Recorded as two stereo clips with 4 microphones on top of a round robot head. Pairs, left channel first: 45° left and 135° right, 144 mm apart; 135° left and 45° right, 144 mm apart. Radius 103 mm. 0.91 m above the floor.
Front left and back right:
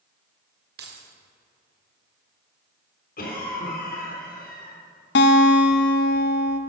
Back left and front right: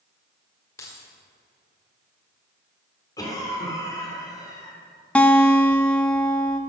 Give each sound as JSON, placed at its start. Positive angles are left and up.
{"t": 0.8, "sound": "keys jangling", "azimuth_deg": -150, "distance_m": 1.7}
{"t": 3.2, "sound": "a cough", "azimuth_deg": 70, "distance_m": 3.5}
{"t": 5.2, "sound": "a guitar", "azimuth_deg": 55, "distance_m": 0.5}